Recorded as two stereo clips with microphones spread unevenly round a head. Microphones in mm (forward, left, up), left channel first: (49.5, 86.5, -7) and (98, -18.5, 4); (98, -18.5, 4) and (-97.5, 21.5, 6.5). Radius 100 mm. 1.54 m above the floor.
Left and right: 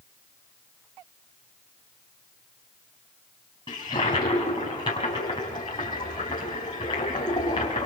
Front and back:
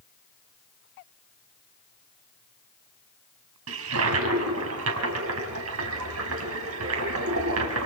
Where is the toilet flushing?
175° right, 4.5 m.